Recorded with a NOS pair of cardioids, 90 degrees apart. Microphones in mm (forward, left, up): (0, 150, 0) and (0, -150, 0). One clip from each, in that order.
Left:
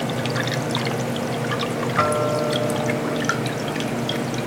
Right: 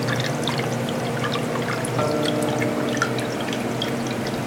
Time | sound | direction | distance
2.0 | a guitar | 25° left | 3 m